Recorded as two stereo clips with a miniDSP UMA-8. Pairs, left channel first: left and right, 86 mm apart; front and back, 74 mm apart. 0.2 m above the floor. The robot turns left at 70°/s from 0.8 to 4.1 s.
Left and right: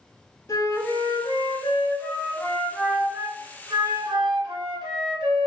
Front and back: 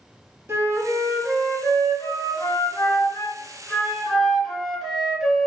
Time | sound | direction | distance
0.5 | a flute | 135° left | 0.7 m